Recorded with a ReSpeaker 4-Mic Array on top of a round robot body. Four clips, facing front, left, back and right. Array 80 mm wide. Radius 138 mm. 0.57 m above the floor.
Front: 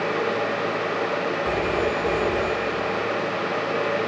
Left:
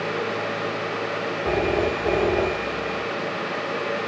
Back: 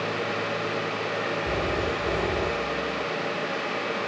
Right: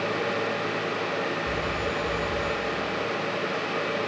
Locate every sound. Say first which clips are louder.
1.4 s a phone ringing: left 6 dB, front 5 dB; 80° left